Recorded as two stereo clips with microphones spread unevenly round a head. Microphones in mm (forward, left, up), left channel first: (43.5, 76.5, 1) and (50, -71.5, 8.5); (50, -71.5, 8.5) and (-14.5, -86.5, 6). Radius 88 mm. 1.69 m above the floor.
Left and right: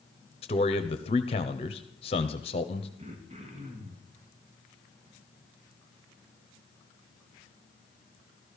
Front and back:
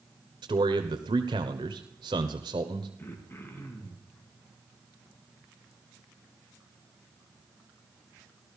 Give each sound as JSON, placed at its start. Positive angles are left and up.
{"t": 0.4, "sound": "a man speaking", "azimuth_deg": 155, "distance_m": 1.0}
{"t": 3.0, "sound": "throat clearing", "azimuth_deg": -45, "distance_m": 3.0}